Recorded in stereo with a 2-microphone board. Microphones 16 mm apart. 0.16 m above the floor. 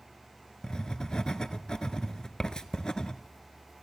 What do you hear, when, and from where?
0.6 s writing: 45° left (ahead or behind), 0.6 m